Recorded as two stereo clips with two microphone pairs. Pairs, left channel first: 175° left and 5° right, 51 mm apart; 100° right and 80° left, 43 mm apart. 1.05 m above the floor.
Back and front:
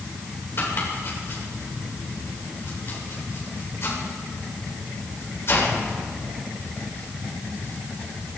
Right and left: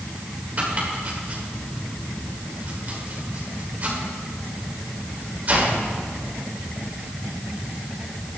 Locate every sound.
0.6 s chopping: 135° left, 3 m